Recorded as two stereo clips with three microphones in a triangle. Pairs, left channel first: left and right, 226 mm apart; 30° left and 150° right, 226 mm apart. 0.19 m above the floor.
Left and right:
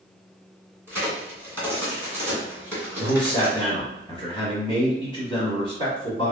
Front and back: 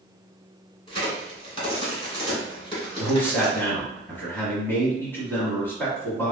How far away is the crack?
About 1.9 m.